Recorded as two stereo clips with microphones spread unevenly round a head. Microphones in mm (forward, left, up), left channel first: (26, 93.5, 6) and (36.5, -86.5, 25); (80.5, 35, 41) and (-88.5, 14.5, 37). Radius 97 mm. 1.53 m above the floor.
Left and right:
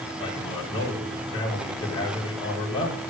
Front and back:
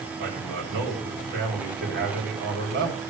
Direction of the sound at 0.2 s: 160° left.